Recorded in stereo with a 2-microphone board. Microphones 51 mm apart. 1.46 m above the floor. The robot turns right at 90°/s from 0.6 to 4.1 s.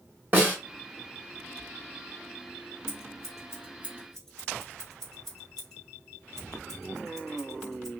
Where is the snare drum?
30° right (ahead or behind), 1.4 m.